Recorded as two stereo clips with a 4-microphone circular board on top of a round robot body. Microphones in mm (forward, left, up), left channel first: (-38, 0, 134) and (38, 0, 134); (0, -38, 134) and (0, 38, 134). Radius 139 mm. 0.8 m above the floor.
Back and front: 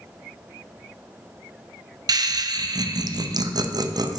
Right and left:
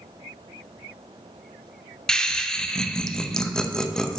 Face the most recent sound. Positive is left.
turn(degrees=-10)